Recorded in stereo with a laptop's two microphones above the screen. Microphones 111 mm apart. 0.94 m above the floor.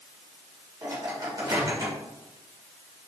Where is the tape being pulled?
No tape being pulled in this recording.